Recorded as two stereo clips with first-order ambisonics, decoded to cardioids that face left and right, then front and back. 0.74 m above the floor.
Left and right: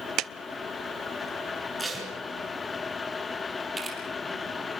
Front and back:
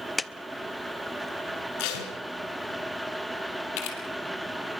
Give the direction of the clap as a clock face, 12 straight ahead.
2 o'clock.